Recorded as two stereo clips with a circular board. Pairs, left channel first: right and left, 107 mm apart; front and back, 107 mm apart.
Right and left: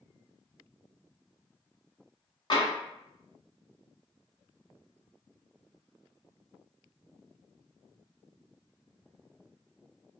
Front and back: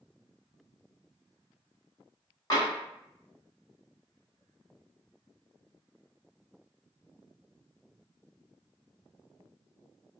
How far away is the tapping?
About 1.0 m.